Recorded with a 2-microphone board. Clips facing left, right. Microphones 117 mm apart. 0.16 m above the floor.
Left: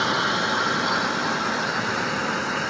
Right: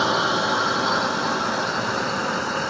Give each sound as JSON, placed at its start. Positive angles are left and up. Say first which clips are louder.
{"t": 0.0, "sound": "a drone", "louder": "right 3 dB", "side_deg": -25}